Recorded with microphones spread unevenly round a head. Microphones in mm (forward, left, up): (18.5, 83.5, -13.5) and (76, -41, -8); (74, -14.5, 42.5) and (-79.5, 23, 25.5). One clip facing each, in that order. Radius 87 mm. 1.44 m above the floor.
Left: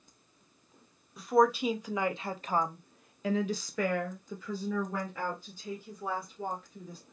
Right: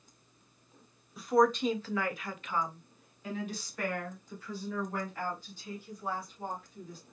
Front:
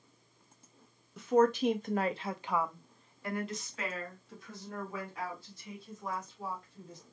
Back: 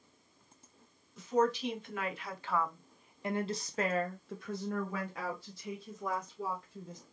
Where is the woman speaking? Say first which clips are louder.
Left 1 dB, front 4 dB; 25° left, 1.1 m; by 7.0 s 155° left, 2.5 m.